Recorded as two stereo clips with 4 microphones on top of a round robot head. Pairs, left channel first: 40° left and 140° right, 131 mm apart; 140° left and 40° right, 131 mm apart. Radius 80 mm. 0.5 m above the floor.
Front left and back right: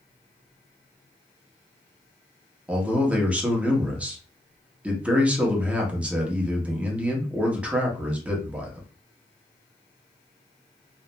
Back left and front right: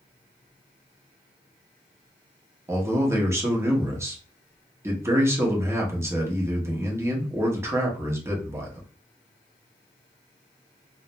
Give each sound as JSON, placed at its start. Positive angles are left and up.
{"t": 2.7, "sound": "a man speaking", "azimuth_deg": -75, "distance_m": 0.8}